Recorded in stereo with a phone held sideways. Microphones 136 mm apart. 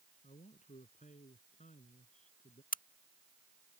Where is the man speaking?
60° left (ahead or behind); by 2.6 s 65° left (ahead or behind).